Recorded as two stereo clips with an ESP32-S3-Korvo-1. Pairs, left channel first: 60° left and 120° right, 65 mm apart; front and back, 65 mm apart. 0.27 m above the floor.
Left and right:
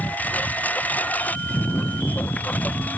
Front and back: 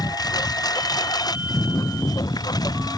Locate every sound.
0.0 s a lawn mower: 5° right